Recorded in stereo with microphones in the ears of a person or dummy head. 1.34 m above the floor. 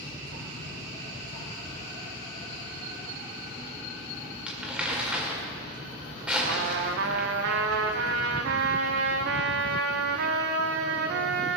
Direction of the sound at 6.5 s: 70° right (ahead or behind).